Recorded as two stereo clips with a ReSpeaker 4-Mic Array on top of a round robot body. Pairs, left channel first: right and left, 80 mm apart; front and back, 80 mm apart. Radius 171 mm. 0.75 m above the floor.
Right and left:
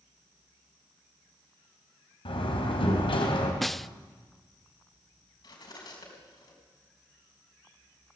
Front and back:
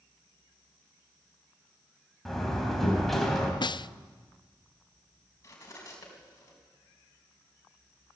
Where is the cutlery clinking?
60° right, 4.5 m.